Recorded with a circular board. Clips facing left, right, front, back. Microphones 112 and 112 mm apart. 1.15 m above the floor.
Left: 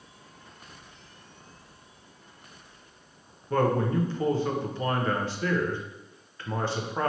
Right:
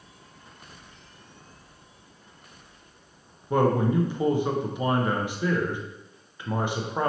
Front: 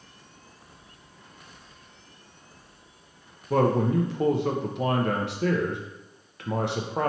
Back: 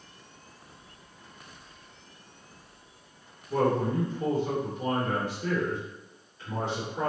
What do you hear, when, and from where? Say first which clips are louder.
3.5 s a man speaking: right 3 dB, front 3 dB; 15° right, 0.6 m